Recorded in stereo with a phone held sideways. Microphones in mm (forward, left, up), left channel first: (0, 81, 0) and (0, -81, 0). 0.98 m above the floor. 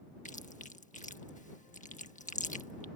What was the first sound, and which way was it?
Chewing, 55° left (ahead or behind).